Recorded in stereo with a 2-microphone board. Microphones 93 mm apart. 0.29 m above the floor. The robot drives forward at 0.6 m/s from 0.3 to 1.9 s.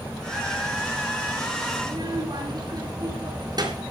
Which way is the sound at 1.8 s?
50° right (ahead or behind).